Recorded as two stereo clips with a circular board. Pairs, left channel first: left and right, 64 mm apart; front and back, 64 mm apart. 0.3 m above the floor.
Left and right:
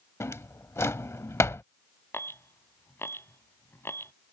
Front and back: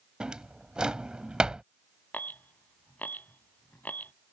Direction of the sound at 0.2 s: 110° left.